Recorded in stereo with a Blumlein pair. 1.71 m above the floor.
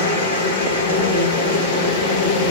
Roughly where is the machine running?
Ahead left.